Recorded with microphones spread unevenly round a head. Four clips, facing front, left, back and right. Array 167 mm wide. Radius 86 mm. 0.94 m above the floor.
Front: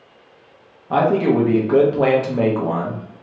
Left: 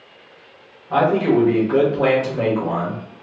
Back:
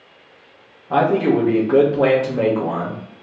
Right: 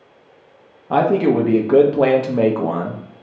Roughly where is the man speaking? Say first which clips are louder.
Right 1 dB, even; right.